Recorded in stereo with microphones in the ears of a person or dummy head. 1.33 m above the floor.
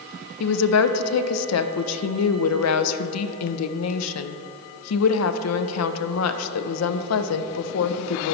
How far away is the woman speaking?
About 0.5 m.